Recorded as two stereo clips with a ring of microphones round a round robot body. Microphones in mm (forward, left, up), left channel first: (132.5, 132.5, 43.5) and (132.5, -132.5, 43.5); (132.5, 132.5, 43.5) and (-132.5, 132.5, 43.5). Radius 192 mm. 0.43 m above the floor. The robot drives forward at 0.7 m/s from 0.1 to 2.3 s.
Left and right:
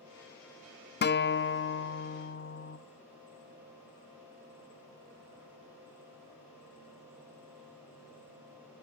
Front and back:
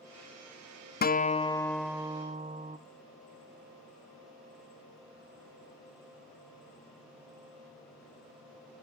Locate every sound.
1.0 s a guitar: 50° left, 1.1 m; by 2.8 s 120° left, 1.0 m